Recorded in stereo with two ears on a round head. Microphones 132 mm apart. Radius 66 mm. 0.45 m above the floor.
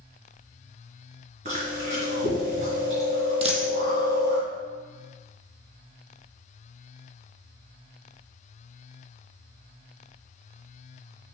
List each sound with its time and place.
1.4 s chewing: 45° right (ahead or behind), 4 m
3.4 s a dropped coin: 40° right (ahead or behind), 1.7 m